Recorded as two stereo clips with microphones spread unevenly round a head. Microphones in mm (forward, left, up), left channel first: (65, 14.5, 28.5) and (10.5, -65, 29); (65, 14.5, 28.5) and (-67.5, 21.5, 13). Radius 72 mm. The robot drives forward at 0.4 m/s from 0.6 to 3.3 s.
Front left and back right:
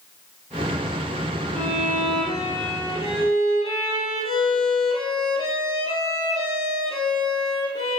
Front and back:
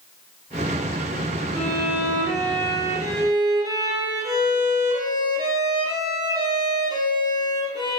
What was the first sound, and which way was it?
A violin, 105° left.